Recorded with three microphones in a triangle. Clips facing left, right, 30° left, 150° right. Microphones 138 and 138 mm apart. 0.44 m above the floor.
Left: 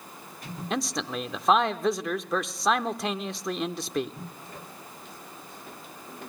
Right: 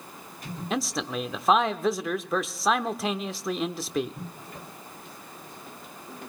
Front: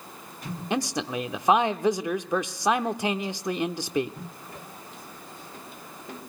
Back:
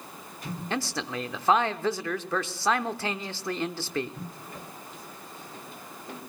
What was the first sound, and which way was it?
A man speaking, straight ahead.